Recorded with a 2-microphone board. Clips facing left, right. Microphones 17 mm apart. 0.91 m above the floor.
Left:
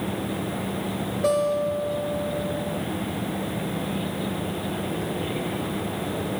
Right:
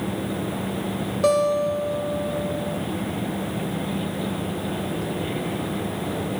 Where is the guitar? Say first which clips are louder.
Right 3 dB; 75° right (ahead or behind), 3.5 m.